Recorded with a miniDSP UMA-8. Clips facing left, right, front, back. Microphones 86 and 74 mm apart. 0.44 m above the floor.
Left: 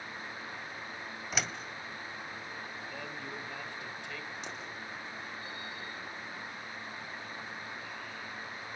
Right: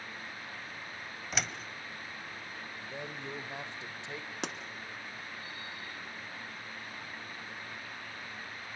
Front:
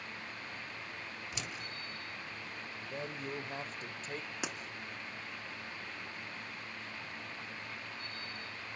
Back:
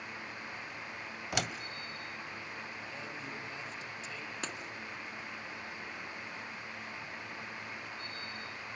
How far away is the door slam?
About 1.5 m.